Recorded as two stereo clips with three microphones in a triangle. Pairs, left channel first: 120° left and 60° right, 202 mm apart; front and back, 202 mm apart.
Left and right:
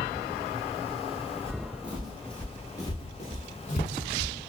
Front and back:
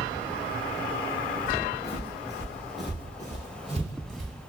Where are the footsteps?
5° left, 1.0 m; by 4.3 s 145° left, 1.2 m.